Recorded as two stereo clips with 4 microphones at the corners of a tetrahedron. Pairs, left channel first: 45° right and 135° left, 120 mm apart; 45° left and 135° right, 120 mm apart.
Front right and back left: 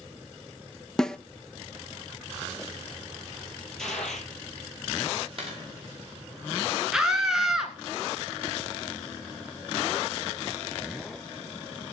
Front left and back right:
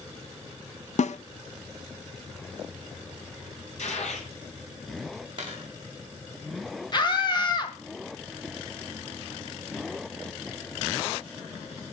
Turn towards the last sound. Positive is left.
turn(degrees=55)